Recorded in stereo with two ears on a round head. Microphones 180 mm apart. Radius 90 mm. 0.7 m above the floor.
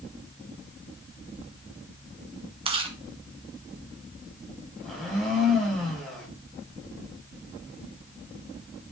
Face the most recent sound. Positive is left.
turn(degrees=0)  # may be behind; listen again after turning